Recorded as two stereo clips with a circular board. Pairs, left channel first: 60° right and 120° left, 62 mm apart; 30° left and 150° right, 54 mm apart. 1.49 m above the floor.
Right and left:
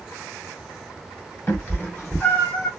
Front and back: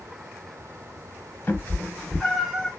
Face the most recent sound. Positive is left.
turn(degrees=-90)